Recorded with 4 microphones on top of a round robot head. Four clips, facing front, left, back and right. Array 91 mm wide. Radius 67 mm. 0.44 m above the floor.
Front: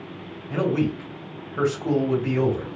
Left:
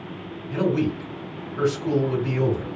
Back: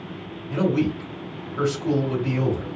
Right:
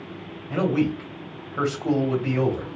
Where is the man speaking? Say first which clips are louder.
Even, back 1 dB; 65° right, 1.7 m.